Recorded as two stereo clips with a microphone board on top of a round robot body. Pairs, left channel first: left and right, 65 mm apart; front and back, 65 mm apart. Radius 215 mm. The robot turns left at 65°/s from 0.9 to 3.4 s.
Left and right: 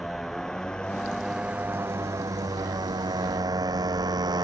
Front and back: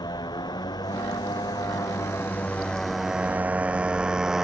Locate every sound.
0.0 s a motorcycle: straight ahead; by 4.5 s 95° right